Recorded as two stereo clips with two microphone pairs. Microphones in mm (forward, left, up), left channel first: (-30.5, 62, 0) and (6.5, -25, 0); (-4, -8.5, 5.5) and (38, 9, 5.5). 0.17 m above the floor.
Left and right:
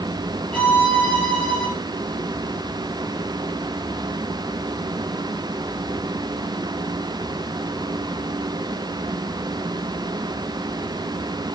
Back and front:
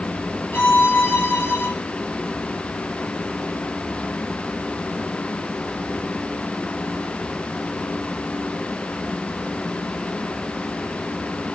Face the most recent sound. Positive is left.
turn(degrees=-175)